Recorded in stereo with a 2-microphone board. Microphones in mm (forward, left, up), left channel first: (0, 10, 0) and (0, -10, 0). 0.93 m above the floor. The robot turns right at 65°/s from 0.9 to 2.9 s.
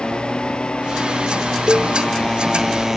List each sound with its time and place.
0.0 s a motorcycle: 50° left (ahead or behind); by 3.0 s 15° right (ahead or behind)
1.7 s a cowbell: 35° right (ahead or behind); by 1.9 s 15° right (ahead or behind)